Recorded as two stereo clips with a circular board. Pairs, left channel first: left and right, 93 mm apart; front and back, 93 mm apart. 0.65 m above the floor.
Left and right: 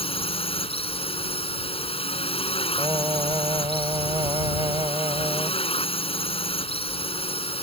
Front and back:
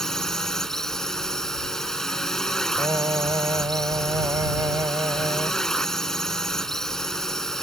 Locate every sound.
0.0 s a drone: 85° left
2.8 s singing: 130° right